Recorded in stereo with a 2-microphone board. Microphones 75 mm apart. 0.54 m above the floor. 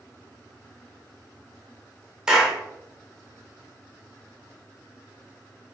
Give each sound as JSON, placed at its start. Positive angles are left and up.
{"t": 2.3, "sound": "a clap", "side_deg": -10, "distance_m": 0.8}